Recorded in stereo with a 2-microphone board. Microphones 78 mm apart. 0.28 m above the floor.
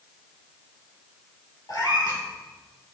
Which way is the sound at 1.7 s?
60° left (ahead or behind).